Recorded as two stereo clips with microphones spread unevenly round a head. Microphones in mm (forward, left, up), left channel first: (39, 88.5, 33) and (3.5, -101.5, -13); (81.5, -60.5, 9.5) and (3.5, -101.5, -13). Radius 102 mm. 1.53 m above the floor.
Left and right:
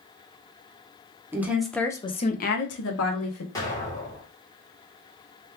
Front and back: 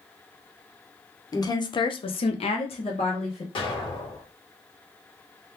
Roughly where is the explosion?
Ahead.